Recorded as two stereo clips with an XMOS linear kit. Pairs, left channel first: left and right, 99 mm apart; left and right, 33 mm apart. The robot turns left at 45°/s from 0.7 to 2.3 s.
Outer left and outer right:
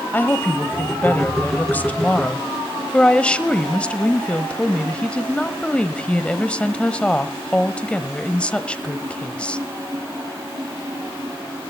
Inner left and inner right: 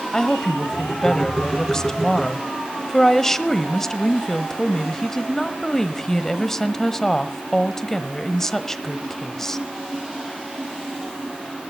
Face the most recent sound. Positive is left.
turn(degrees=10)  # may be behind; listen again after turning